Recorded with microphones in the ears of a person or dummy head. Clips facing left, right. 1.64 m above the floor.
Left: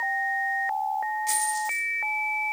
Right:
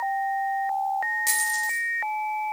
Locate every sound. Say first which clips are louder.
1.3 s a dropped coin: left 4 dB; 70° right (ahead or behind), 3 m